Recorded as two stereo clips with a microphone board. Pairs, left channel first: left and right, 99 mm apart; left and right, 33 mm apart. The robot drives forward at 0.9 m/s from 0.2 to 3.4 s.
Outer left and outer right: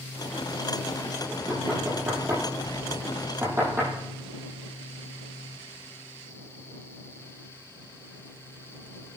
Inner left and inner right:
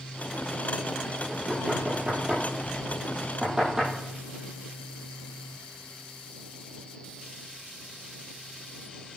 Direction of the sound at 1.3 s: 30° right (ahead or behind).